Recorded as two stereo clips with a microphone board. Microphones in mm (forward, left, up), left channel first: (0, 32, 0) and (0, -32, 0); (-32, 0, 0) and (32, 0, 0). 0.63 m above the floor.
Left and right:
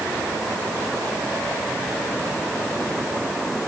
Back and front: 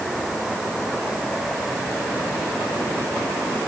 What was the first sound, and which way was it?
Only background noise.